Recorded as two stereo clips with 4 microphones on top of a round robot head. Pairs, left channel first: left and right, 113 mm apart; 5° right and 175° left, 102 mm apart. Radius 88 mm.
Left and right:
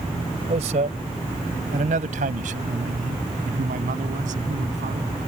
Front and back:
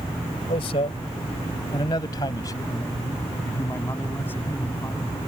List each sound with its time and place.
0.5 s a man speaking: 50° right; by 5.1 s 80° right